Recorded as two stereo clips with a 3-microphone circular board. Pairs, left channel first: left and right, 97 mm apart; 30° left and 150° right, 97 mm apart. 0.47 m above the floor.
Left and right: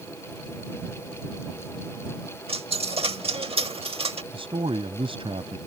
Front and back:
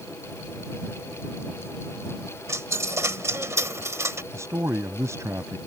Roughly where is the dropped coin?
Right.